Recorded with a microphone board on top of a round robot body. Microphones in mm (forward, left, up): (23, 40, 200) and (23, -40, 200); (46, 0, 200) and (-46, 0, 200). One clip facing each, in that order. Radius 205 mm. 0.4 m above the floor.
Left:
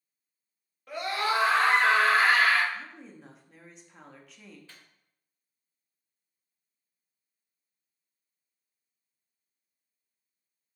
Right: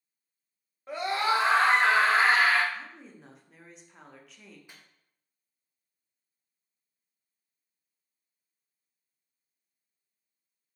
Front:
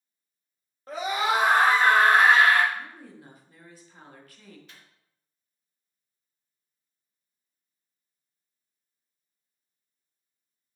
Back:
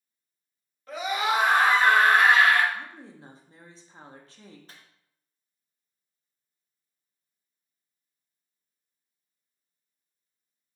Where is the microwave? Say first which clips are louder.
Even, back 1 dB; 155° right, 0.9 m.